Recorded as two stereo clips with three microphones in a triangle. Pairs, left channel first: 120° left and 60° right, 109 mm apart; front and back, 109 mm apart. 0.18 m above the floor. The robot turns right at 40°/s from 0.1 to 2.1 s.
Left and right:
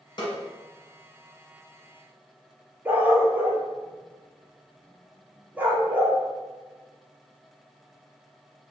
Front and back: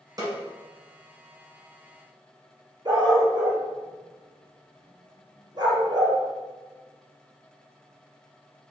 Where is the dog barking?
135° right, 1.0 m.